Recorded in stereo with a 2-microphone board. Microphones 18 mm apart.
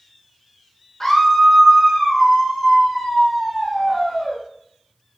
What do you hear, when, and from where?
1.0 s a scream: 15° left (ahead or behind), 0.9 m; by 4.4 s 20° right (ahead or behind), 2.5 m